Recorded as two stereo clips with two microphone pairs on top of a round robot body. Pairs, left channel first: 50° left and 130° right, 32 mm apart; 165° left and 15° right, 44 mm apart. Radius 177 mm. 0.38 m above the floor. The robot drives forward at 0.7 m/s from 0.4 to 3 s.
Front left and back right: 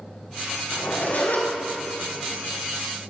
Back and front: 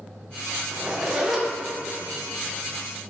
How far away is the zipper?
About 3.5 m.